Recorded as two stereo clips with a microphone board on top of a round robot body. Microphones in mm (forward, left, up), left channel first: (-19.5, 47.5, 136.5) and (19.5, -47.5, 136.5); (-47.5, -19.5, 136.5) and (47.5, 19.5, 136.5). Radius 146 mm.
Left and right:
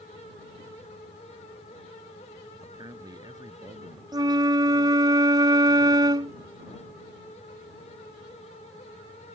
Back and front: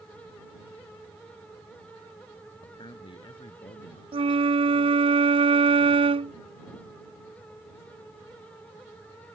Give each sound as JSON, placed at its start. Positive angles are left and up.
{"t": 2.6, "sound": "a man speaking", "azimuth_deg": -120}
{"t": 4.1, "sound": "a flute", "azimuth_deg": -15}